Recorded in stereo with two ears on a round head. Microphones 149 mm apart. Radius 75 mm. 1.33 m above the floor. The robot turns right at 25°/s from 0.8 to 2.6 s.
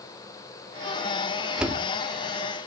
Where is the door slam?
5° right (ahead or behind), 2 m; by 1.8 s 10° right (ahead or behind), 2 m.